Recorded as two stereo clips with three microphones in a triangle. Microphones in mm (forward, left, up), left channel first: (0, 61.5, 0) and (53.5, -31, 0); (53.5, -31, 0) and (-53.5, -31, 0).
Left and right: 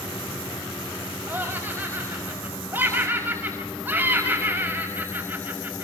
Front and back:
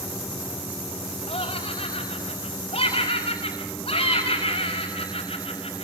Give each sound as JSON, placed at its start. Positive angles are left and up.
{"t": 1.3, "sound": "laughter", "azimuth_deg": 10, "distance_m": 5.5}